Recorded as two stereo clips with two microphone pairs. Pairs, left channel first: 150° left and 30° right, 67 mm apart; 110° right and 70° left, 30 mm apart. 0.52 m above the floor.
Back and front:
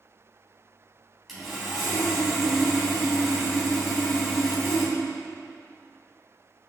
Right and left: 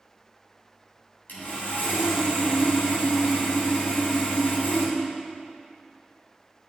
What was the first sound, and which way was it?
Sawing, 115° right.